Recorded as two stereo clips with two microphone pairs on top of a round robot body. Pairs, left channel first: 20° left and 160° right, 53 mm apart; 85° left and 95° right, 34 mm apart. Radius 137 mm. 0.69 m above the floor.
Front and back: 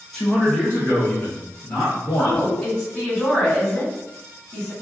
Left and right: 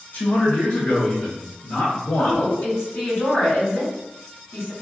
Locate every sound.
0.1 s a man speaking: 110° left, 0.7 m; by 2.5 s 50° left, 1.5 m
2.2 s a woman speaking: 95° left, 1.8 m